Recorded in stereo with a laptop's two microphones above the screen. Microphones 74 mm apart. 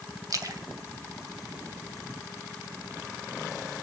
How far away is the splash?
About 1.0 m.